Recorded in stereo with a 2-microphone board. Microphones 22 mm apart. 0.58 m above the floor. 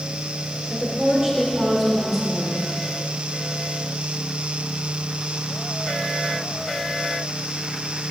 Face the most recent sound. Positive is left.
turn(degrees=-15)  # may be behind; listen again after turning